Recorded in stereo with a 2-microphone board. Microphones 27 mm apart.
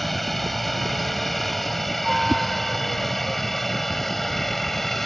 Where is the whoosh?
5° right (ahead or behind).